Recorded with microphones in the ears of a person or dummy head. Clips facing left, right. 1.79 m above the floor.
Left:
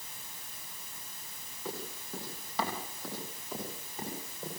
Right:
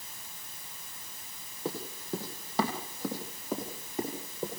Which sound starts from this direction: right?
Running footsteps, at 1.6 s.